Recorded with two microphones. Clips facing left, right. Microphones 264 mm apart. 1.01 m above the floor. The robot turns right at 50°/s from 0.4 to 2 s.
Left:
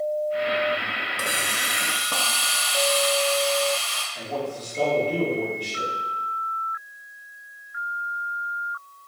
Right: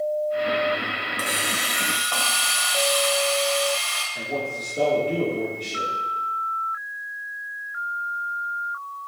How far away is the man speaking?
About 1.9 m.